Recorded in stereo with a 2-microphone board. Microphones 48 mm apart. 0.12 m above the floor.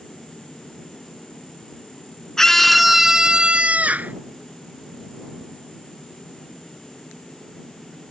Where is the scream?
10° left (ahead or behind); by 4.1 s 45° right (ahead or behind).